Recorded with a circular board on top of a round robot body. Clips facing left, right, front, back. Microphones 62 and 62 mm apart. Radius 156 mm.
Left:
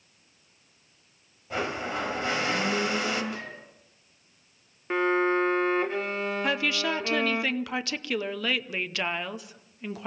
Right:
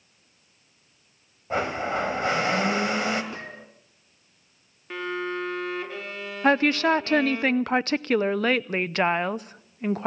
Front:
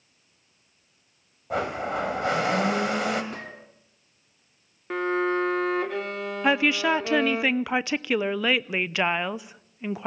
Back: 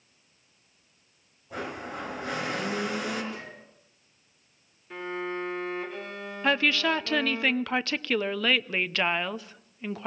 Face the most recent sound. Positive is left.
turn(degrees=-70)